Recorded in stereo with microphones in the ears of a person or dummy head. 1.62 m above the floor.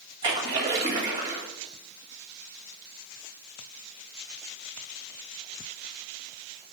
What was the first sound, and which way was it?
A splash, 25° right (ahead or behind).